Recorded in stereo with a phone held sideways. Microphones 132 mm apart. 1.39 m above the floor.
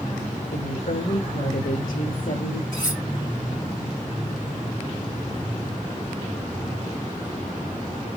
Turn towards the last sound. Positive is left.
turn(degrees=75)  # may be behind; listen again after turning